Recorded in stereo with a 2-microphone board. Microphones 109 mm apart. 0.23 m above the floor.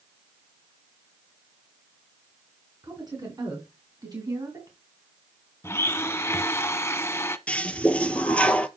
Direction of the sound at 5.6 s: 25° left (ahead or behind).